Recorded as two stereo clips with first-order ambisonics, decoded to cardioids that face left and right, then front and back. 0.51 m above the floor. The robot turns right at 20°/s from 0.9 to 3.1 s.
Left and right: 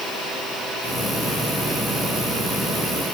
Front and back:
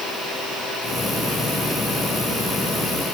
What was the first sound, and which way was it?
Only background noise.